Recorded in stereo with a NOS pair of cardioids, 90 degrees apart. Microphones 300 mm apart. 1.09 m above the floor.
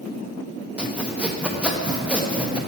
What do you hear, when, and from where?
0.8 s sawing: 5° right, 0.7 m